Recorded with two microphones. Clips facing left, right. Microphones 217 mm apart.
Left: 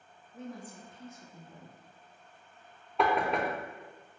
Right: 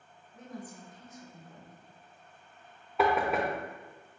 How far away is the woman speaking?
About 0.8 m.